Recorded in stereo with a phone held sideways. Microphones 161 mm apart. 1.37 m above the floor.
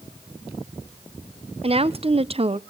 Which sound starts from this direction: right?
A woman speaking, at 1.6 s.